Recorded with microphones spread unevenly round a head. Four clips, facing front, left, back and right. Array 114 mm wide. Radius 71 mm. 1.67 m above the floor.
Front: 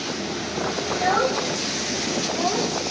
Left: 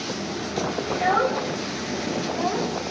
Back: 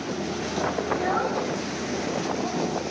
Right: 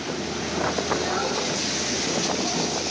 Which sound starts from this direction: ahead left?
A child speaking, at 0.9 s.